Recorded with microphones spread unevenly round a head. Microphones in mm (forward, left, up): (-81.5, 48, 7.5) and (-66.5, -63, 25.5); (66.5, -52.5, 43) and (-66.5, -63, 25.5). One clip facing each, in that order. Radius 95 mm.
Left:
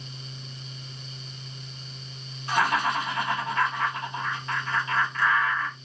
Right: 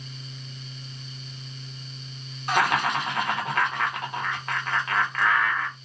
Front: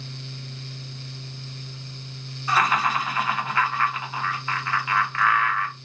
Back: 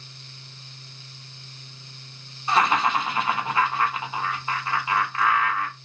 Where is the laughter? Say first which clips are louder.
Right 1 dB, back 1 dB; 110° right, 1.2 m.